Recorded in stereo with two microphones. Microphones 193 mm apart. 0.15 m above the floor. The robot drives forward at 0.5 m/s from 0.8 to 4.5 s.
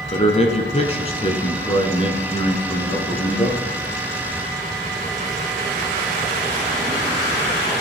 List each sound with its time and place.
0.1 s a man speaking: 35° left (ahead or behind), 1.3 m; by 3.6 s 20° left (ahead or behind), 2.0 m